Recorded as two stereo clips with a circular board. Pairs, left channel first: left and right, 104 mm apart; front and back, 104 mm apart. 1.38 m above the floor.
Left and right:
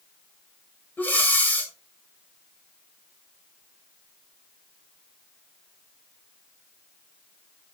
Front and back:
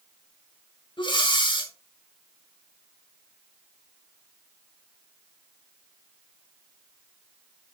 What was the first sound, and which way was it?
Breathing, 20° left.